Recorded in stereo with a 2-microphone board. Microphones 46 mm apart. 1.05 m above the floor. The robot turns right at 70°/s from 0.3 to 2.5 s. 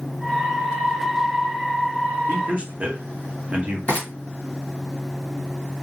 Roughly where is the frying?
Left.